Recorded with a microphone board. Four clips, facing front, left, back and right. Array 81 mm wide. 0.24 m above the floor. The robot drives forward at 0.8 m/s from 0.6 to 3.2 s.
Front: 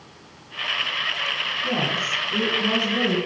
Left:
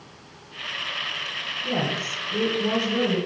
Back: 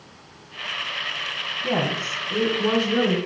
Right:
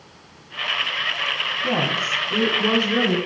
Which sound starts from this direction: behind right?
A woman speaking, at 1.6 s.